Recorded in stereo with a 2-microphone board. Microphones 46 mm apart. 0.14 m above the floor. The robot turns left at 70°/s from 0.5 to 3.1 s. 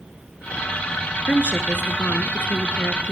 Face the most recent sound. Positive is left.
turn(degrees=15)